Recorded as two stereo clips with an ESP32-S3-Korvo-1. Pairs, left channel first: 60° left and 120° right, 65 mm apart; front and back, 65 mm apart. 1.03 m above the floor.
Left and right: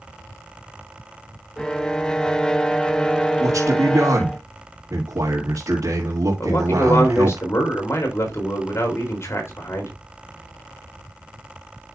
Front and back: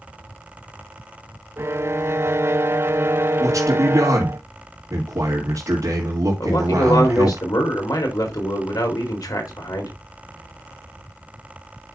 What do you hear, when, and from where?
1.6 s a violin: 140° left, 0.6 m
3.4 s a man speaking: 150° right, 2.5 m
6.4 s a man speaking: 15° left, 3.5 m